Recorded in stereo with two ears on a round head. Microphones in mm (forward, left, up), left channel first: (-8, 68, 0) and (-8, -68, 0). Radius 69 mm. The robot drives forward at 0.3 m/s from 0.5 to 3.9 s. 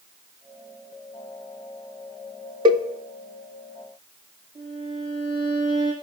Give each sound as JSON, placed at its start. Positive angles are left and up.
{"t": 2.6, "sound": "a cowbell", "side_deg": -30, "distance_m": 0.8}
{"t": 4.5, "sound": "a violin", "side_deg": -30, "distance_m": 7.5}